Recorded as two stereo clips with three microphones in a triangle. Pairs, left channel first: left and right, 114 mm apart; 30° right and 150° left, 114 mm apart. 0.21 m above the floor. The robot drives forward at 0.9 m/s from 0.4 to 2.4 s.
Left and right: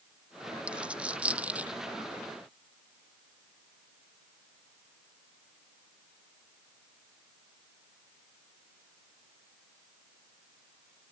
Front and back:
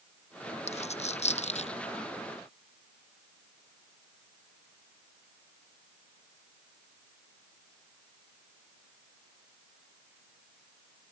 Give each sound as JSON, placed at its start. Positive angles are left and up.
{"t": 0.7, "sound": "a dropped coin", "azimuth_deg": -10}